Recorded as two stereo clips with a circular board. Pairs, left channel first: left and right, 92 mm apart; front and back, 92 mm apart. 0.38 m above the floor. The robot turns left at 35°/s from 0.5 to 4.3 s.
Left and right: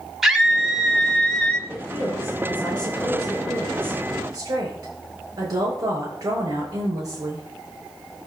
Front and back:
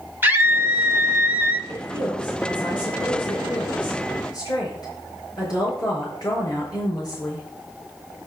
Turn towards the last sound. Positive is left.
turn(degrees=-40)